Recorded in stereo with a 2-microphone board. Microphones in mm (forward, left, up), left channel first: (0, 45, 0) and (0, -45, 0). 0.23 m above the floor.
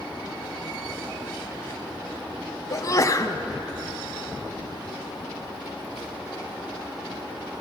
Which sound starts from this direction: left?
A sneeze, at 2.7 s.